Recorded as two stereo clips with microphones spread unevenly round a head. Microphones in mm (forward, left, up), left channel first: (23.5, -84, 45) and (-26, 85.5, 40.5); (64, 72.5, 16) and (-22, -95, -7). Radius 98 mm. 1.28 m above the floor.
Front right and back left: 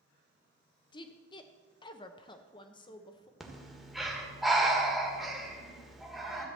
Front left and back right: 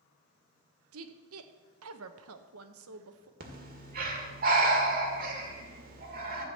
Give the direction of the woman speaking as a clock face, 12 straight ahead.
5 o'clock.